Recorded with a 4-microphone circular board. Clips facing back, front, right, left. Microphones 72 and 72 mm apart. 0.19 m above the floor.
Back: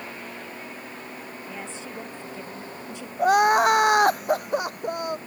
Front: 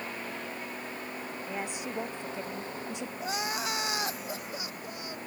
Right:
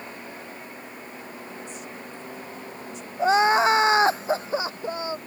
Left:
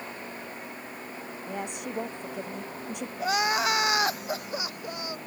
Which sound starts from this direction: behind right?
Crying, at 3.2 s.